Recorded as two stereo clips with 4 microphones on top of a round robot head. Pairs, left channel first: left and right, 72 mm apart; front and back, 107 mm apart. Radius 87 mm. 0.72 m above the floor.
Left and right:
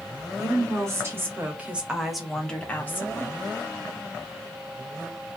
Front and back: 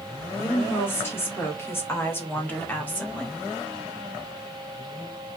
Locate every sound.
0.4 s a woman speaking: 65° right, 1.5 m; by 3.5 s 75° left, 1.2 m